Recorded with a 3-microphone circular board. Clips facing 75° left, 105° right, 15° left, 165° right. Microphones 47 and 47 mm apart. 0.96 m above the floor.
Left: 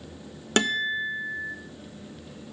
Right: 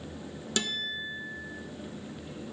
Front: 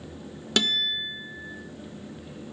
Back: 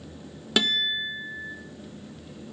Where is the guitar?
110° left, 0.6 m.